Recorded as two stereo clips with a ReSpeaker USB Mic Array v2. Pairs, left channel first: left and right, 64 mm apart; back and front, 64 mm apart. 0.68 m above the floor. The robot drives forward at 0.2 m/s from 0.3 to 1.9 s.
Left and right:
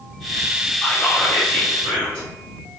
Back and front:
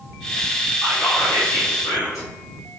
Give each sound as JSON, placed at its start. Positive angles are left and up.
{"t": 0.8, "sound": "whispering", "azimuth_deg": 165, "distance_m": 1.6}